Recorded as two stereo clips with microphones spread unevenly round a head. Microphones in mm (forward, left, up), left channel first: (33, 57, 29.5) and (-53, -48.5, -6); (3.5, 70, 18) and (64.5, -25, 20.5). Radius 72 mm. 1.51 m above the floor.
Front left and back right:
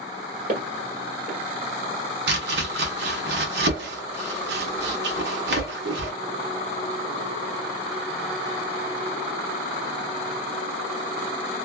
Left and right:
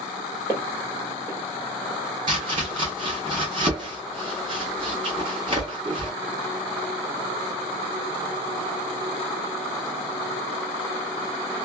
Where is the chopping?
120° right, 1.1 m.